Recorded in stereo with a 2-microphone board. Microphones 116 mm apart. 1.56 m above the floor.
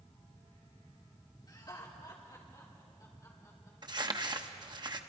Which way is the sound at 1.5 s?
35° left (ahead or behind).